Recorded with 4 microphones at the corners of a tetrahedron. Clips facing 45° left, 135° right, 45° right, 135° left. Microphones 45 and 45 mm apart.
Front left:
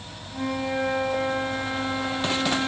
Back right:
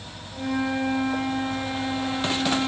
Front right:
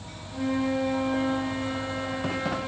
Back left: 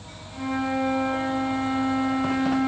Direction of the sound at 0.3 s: 35° left.